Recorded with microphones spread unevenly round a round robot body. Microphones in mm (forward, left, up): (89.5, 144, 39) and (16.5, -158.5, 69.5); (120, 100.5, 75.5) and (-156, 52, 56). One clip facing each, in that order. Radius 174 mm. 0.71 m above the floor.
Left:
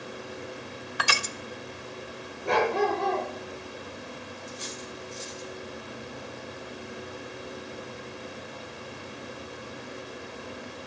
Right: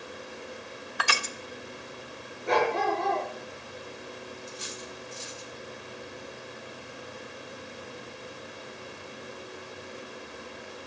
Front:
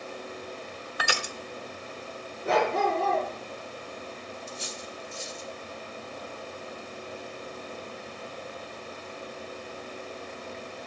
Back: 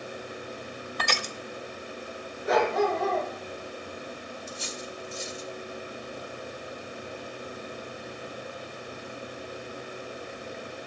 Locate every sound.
1.0 s crushing: 90° left, 0.8 m
2.5 s a dog barking: 70° left, 5 m
4.5 s cutlery clinking: 175° left, 1.6 m